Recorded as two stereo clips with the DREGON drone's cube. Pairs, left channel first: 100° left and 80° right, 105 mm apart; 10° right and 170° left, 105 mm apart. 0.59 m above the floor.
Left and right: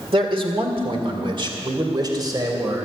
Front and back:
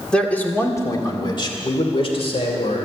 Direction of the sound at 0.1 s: 90° right.